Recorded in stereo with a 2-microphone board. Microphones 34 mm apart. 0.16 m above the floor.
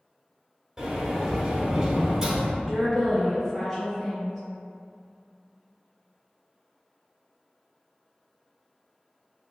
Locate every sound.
0.8 s a sliding door: 15° right (ahead or behind), 0.9 m
2.6 s a woman speaking: 5° left (ahead or behind), 1.0 m